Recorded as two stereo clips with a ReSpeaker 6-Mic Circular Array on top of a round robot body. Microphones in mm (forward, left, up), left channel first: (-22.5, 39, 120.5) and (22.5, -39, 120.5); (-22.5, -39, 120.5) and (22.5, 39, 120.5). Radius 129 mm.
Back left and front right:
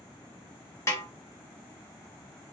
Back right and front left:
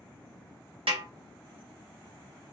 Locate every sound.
0.9 s a snare drum: 60° left, 0.9 m